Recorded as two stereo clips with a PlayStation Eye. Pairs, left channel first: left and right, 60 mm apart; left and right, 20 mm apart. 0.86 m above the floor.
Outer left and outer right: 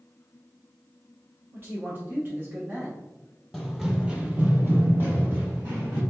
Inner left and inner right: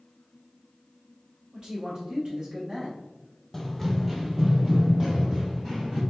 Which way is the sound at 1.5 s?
35° right (ahead or behind).